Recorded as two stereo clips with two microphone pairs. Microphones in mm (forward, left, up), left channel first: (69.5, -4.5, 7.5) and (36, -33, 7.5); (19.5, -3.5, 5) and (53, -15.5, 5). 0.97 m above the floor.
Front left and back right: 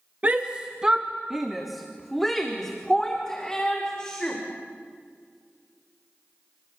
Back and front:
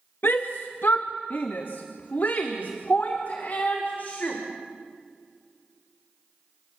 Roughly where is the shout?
Behind.